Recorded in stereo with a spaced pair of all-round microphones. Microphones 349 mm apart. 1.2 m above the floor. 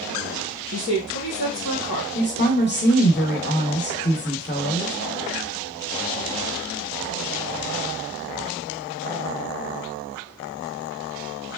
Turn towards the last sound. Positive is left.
turn(degrees=30)  # may be behind; listen again after turning